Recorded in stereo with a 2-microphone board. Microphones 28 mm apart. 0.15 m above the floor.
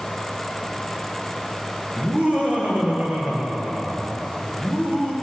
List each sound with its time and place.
2.0 s laughter: 60° right (ahead or behind), 3 m; by 5.1 s 75° right (ahead or behind), 5 m